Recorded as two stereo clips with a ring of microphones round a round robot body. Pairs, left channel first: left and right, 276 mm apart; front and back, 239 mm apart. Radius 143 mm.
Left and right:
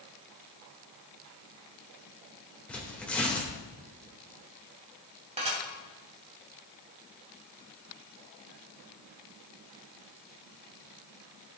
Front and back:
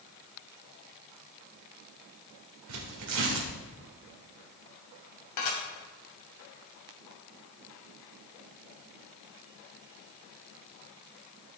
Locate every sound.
2.7 s tearing paper: 175° left, 1.8 m
5.4 s dishes clattering: 20° right, 2.5 m